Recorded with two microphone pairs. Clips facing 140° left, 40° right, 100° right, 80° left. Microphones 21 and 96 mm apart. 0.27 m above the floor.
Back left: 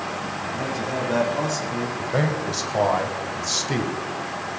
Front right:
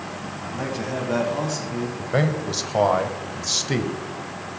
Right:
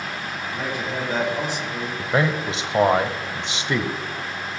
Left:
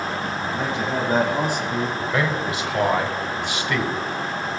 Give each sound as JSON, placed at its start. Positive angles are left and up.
{"t": 0.4, "sound": "a man speaking", "azimuth_deg": 10, "distance_m": 1.9}
{"t": 2.0, "sound": "a man speaking", "azimuth_deg": -95, "distance_m": 0.9}